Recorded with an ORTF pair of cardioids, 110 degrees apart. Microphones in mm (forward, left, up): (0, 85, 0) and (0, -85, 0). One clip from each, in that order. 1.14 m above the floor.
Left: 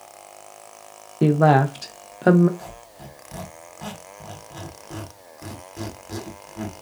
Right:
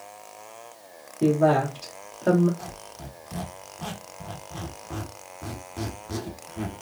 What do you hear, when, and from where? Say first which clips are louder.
1.2 s a woman speaking: left 3 dB; 50° left, 0.8 m
2.6 s a squeak: even; 5° right, 1.0 m